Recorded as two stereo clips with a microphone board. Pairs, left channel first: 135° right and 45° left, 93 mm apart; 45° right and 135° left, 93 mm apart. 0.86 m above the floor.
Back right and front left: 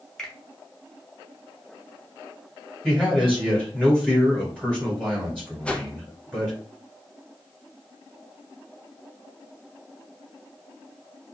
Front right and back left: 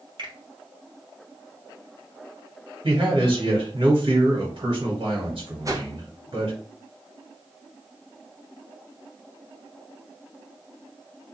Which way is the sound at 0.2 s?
145° left.